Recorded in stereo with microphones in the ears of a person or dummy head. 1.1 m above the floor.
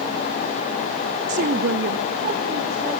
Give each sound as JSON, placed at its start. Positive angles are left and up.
{"t": 1.3, "sound": "a woman speaking", "side_deg": -40, "distance_m": 0.7}